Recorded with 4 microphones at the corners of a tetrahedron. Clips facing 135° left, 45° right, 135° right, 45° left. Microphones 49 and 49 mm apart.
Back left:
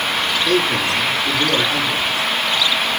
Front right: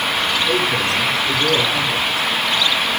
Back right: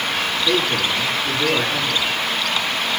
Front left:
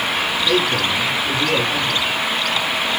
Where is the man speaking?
155° left, 6.5 m.